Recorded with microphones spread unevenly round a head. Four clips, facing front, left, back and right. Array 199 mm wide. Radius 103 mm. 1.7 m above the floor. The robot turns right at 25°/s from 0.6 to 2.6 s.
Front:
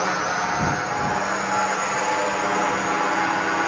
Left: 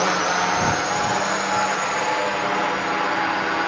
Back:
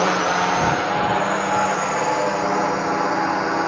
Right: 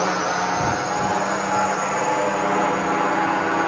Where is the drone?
170° right; by 3.7 s 120° right.